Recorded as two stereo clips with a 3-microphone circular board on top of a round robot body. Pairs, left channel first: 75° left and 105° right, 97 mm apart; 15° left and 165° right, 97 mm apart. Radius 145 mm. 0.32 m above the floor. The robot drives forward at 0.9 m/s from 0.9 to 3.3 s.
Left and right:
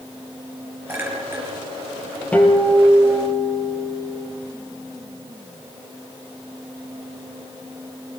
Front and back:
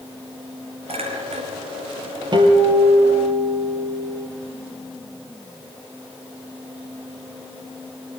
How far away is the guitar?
About 4.5 m.